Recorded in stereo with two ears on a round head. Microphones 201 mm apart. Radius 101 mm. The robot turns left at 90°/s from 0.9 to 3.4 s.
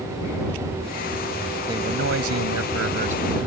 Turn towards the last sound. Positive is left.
turn(degrees=-170)